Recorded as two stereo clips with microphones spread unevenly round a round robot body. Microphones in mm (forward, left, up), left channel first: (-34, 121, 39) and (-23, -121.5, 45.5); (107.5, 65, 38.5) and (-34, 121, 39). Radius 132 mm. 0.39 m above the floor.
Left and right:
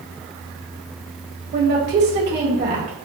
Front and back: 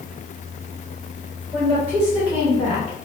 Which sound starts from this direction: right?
A woman speaking, at 1.5 s.